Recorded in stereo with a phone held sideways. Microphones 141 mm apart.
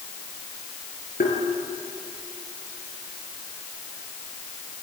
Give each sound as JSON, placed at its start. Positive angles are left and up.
{"t": 1.2, "sound": "tapping", "side_deg": 85, "distance_m": 5.5}